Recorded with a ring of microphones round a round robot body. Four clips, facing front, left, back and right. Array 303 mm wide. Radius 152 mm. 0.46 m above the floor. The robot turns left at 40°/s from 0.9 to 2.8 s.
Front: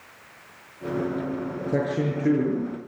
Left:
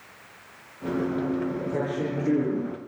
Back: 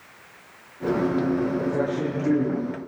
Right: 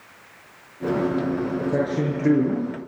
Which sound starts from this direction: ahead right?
A man speaking, at 1.7 s.